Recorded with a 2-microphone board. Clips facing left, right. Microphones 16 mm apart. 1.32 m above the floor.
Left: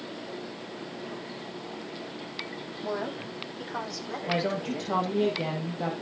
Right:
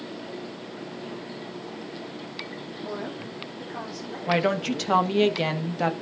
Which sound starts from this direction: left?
A woman speaking, at 2.8 s.